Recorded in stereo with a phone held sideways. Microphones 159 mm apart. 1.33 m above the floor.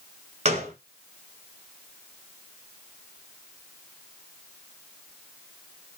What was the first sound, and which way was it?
A gunshot, 45° right (ahead or behind).